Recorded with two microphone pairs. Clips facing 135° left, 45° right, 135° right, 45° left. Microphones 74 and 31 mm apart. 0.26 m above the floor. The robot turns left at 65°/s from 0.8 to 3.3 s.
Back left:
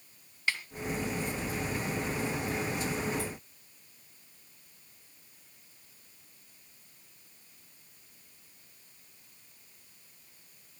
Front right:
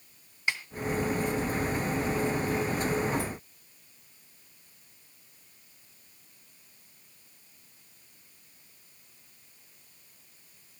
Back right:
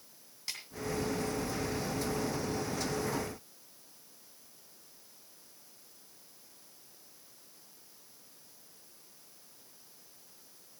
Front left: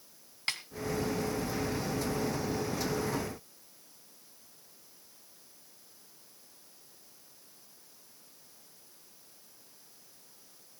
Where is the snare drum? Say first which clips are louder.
Front right 1 dB, front left 7 dB; 25° left, 2 m.